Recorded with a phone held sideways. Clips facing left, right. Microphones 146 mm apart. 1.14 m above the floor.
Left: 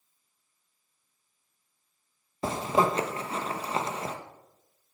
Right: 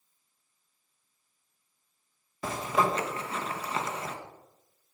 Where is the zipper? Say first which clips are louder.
Left 3 dB; 30° left (ahead or behind), 1.4 m.